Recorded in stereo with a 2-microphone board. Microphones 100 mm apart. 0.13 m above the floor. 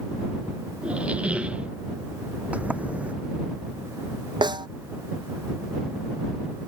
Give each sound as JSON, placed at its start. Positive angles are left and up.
{"t": 0.8, "sound": "a squeak", "side_deg": -15}
{"t": 2.5, "sound": "a sliding door", "side_deg": -15}
{"t": 4.4, "sound": "a snare drum", "side_deg": -55}